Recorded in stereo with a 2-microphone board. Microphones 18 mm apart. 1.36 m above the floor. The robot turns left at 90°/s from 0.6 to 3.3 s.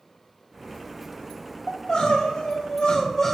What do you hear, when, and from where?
1.7 s crying: 165° left, 1.7 m; by 3.3 s 20° left, 1.7 m